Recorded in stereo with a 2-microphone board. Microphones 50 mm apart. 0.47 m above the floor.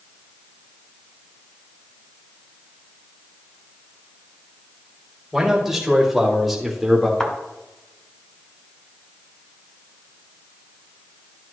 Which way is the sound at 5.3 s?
5° right (ahead or behind).